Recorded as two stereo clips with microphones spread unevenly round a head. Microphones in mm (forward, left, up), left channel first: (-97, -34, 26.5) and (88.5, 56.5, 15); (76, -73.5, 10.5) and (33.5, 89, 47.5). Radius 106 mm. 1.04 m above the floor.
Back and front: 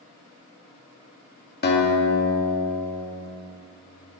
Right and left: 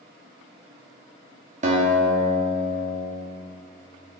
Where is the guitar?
165° left, 2.5 m.